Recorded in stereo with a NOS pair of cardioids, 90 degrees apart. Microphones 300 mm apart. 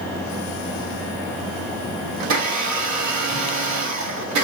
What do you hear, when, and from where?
2.2 s a blender: 70° right, 1.5 m